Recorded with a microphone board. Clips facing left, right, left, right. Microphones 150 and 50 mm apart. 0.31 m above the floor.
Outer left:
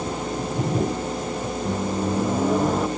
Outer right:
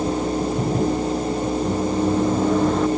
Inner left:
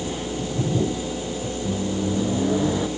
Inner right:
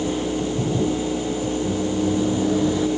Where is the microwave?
5° left (ahead or behind).